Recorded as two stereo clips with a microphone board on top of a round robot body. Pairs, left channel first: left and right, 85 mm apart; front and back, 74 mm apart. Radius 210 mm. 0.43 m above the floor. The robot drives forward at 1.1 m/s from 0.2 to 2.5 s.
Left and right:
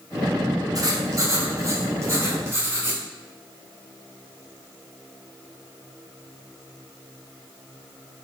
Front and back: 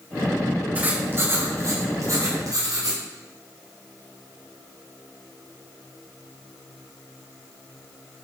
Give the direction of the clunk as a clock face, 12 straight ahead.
No clunk in this recording.